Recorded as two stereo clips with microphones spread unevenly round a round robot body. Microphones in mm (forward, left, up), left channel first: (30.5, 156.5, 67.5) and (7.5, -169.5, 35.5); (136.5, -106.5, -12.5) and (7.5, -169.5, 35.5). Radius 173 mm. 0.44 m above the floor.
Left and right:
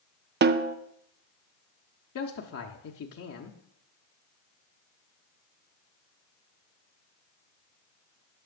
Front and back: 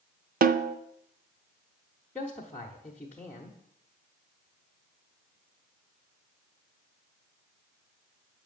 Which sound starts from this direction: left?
A man speaking, at 2.1 s.